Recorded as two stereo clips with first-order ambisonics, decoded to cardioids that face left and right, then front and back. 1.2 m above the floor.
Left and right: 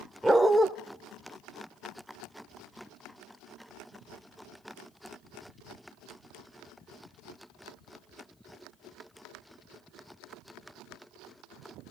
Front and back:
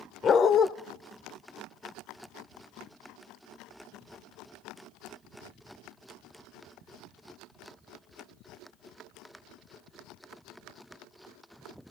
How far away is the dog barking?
About 0.9 m.